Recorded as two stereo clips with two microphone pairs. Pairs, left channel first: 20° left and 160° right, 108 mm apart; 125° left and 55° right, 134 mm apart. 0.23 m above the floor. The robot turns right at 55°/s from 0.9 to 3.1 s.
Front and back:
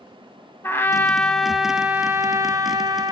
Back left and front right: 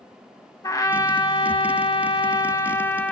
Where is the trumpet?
80° left, 1.1 m; by 3.1 s 160° right, 1.1 m.